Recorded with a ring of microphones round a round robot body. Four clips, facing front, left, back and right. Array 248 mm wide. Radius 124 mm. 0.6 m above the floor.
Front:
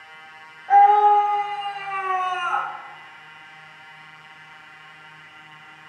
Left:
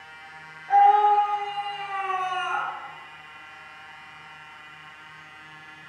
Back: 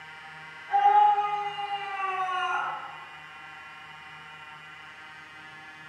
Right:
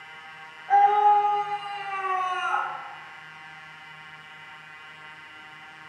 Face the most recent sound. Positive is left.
turn(degrees=-10)